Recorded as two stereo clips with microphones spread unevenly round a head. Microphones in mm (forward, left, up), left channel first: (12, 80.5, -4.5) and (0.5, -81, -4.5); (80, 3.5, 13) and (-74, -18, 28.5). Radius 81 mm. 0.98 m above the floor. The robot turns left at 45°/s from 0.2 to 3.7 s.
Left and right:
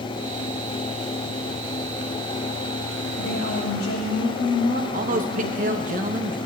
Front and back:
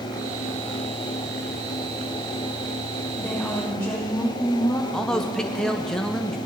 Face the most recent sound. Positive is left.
turn(degrees=-75)